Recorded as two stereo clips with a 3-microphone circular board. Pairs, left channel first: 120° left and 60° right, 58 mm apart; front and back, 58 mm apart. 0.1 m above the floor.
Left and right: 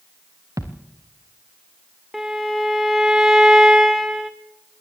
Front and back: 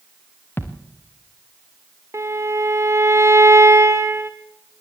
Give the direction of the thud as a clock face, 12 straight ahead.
2 o'clock.